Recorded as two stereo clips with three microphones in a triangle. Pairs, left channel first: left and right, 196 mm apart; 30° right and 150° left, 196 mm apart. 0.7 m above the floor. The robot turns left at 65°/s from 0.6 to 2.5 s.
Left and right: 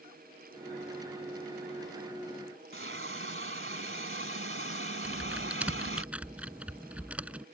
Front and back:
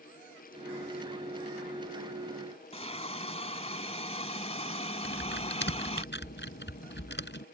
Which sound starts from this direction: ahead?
Typing on a keyboard, at 5.0 s.